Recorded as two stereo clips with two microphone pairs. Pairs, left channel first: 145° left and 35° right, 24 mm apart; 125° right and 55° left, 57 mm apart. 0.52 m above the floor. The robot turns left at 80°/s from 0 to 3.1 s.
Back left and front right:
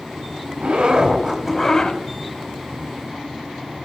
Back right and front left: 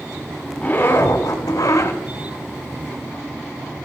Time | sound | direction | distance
0.6 | a zipper | 50° right | 1.4 m